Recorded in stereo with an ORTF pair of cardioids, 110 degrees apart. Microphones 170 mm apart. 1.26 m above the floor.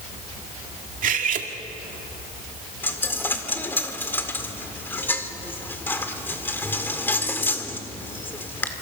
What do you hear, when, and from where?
1.0 s cutlery clinking: 50° right, 2.0 m
2.8 s a dropped coin: 10° left, 1.9 m